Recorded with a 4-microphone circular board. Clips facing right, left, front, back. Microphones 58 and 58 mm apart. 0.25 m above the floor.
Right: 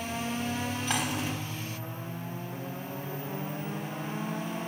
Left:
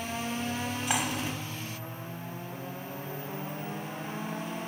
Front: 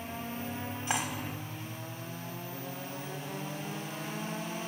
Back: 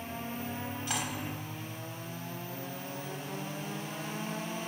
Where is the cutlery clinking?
25° left, 0.6 m.